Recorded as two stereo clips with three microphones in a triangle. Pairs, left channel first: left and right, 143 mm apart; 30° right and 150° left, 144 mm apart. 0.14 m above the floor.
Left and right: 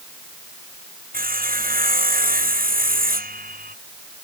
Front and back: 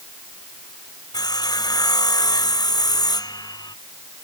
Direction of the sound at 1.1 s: 90° right.